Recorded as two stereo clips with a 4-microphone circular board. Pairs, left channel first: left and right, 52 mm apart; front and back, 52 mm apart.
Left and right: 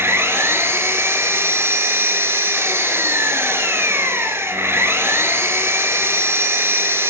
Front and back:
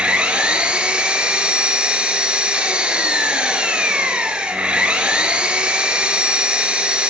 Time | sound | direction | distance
0.0 | an engine running | 115° right | 1.4 m